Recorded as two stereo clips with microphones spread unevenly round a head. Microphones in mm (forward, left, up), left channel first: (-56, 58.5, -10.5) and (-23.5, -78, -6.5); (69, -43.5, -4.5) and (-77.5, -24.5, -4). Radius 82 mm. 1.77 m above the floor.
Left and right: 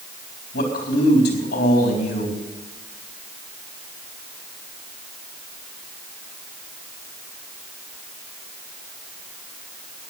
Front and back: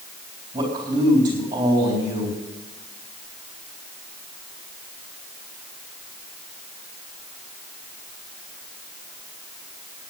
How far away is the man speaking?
About 3.5 m.